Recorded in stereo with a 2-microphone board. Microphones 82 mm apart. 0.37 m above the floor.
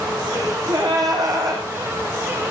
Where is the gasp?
45° right (ahead or behind), 5.5 m.